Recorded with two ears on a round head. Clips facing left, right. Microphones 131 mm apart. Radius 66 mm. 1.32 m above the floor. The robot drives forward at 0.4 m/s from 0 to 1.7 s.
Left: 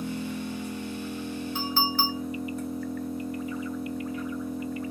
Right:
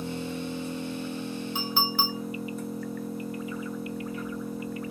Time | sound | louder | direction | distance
0.0 | an engine running | left 1 dB | 5° right (ahead or behind) | 0.8 m
1.6 | a clink | left 2 dB | 15° right (ahead or behind) | 1.6 m